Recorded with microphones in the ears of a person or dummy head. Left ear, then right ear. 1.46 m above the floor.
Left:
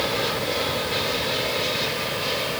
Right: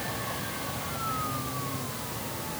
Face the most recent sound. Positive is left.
No sound to turn to.